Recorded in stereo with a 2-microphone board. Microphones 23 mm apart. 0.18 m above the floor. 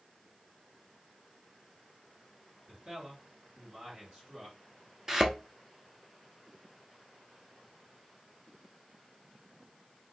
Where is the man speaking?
45° right (ahead or behind), 3 m.